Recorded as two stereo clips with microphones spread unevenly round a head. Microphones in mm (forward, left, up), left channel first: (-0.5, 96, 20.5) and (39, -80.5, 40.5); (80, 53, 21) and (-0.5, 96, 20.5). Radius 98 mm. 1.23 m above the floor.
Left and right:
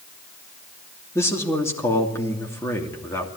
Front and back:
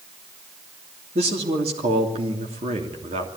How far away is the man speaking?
About 3 m.